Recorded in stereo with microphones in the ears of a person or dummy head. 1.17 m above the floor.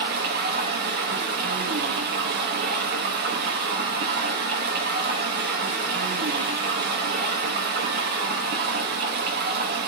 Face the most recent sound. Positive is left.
turn(degrees=-55)  # may be behind; listen again after turning